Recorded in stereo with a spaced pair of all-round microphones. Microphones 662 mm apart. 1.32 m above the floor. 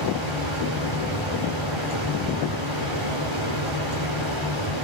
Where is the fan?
45° left (ahead or behind), 4.5 m.